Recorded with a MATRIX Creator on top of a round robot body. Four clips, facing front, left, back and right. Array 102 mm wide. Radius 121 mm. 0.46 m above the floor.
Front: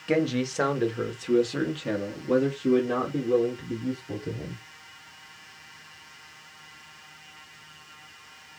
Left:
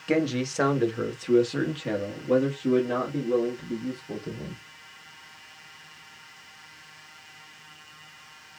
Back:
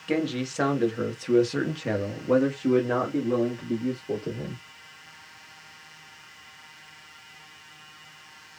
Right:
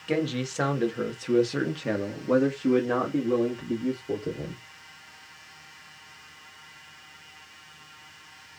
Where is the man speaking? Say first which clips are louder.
Left 3 dB, front 2 dB; 55° left, 1.3 m; by 4.6 s 135° right, 2.5 m.